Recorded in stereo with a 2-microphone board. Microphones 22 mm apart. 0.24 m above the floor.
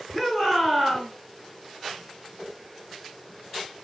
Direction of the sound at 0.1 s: 20° right (ahead or behind).